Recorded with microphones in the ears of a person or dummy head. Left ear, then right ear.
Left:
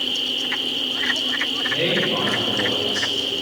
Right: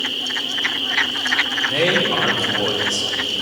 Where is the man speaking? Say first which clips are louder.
Right 1 dB; 50° right (ahead or behind), 3 m.